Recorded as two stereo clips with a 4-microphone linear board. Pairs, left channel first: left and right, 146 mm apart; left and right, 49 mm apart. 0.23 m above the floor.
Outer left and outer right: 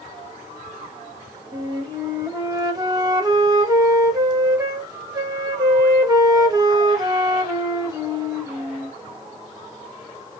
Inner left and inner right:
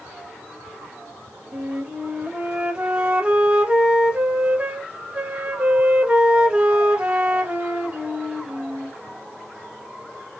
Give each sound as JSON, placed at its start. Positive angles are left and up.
{"t": 1.5, "sound": "a flute", "side_deg": -25, "distance_m": 0.6}